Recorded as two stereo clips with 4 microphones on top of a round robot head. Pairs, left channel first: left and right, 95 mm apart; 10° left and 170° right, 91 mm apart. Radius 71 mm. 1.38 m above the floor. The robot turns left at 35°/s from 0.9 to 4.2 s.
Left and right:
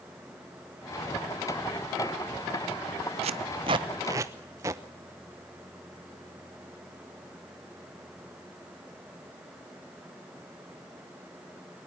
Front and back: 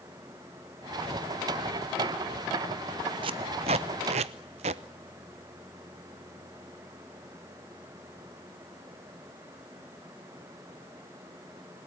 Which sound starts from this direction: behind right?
Tape being pulled, at 3.2 s.